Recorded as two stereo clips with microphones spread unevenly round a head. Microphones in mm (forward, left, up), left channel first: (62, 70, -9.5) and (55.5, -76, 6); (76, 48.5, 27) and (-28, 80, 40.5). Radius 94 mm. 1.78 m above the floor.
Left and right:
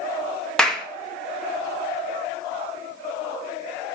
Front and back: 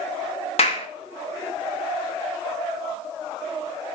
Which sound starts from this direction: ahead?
A clap, at 0.6 s.